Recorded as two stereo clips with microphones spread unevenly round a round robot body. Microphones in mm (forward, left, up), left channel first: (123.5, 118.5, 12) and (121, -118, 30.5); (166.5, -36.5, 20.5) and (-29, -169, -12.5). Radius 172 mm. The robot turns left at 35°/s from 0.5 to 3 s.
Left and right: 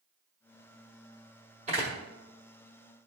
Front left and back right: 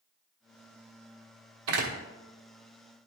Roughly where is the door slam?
Behind.